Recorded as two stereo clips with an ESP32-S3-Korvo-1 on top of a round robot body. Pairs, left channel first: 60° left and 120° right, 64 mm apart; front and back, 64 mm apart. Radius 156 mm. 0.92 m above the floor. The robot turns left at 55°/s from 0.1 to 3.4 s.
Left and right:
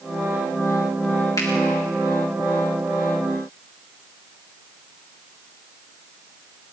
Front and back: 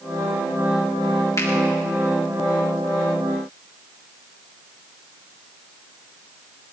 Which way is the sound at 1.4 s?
35° left.